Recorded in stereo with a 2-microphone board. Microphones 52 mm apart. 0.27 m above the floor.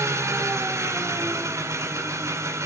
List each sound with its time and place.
0.0 s an engine running: 70° right (ahead or behind), 1.7 m